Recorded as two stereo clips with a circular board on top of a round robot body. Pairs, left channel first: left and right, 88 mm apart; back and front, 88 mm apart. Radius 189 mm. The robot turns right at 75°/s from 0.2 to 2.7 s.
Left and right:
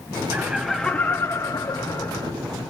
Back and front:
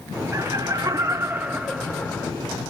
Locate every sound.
0.3 s laughter: 25° right, 0.7 m; by 2.3 s 125° left, 0.7 m